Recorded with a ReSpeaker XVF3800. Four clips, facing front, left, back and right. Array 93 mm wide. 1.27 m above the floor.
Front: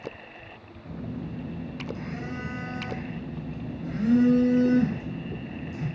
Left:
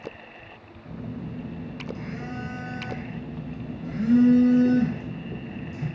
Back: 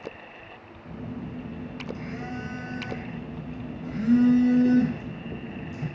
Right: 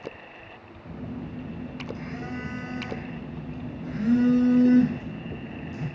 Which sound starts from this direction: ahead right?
A phone buzzing, at 0.8 s.